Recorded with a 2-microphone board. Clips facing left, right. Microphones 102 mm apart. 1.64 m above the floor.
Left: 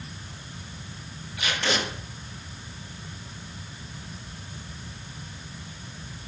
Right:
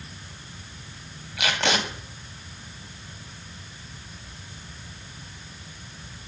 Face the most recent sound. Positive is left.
turn(degrees=-85)